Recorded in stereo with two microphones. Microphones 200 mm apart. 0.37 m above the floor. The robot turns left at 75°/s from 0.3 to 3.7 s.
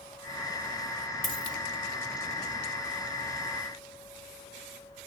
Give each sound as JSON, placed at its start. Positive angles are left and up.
{"t": 1.2, "sound": "a dropped coin", "side_deg": -45, "distance_m": 1.3}